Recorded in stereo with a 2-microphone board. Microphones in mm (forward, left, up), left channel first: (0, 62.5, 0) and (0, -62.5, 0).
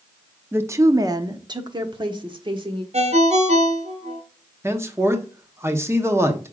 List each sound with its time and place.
0.5 s a woman speaking: 15° right (ahead or behind), 0.6 m; by 2.8 s 40° right (ahead or behind), 1.4 m
2.9 s a ringtone: 60° right (ahead or behind), 1.0 m
4.6 s a man speaking: 20° right (ahead or behind), 1.0 m